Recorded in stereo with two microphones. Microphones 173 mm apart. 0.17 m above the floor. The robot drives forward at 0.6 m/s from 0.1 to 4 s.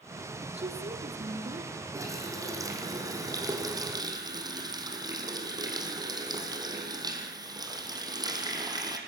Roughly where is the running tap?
Centre.